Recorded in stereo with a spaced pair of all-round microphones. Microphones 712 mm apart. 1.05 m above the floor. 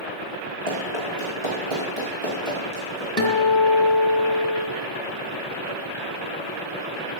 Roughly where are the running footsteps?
Right.